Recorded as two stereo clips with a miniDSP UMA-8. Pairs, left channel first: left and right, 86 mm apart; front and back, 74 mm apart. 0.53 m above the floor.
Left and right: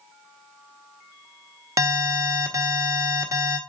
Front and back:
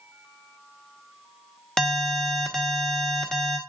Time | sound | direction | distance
1.8 | an alarm | 75° right | 1.0 m